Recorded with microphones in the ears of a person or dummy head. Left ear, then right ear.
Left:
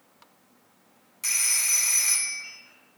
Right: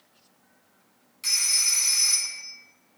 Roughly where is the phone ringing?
Centre.